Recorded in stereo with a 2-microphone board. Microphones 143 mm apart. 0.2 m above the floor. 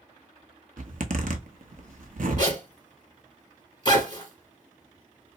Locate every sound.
0.8 s a zipper: 65° right (ahead or behind), 0.7 m
2.4 s a zipper: 30° left (ahead or behind), 1.5 m